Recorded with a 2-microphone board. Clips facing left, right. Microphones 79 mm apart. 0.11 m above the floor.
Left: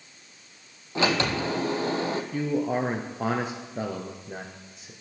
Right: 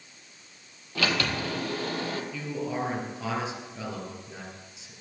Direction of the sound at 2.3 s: 50° left (ahead or behind).